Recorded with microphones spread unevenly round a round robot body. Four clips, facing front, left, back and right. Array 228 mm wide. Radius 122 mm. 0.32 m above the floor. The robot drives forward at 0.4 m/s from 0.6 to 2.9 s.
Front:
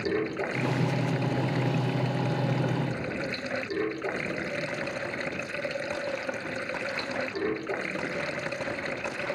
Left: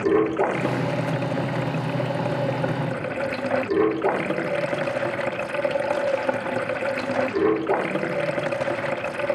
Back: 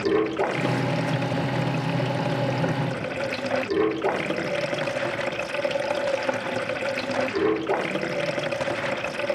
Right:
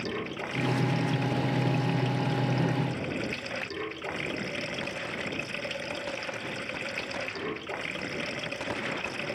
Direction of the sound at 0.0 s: 105° left.